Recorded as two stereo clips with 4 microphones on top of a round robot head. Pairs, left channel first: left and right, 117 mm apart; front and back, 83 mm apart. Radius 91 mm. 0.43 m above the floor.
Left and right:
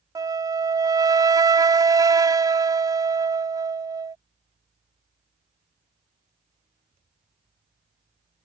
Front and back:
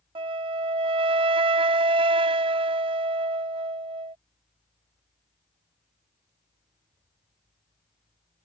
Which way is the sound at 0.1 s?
150° right.